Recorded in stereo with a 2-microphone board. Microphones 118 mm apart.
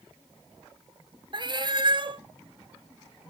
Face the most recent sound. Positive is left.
turn(degrees=-40)  # may be behind; listen again after turning